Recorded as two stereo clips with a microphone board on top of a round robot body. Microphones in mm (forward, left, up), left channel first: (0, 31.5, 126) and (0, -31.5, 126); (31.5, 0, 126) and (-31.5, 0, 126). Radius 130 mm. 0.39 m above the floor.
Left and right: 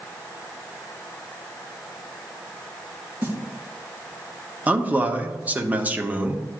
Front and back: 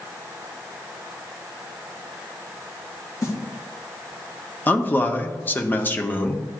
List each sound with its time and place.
3.2 s a snare drum: 35° right, 3.5 m
4.7 s a man speaking: 40° right, 1.1 m